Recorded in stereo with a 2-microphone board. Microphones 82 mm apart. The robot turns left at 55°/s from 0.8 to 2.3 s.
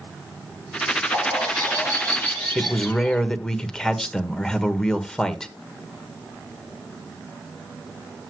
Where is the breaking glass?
I don't hear breaking glass.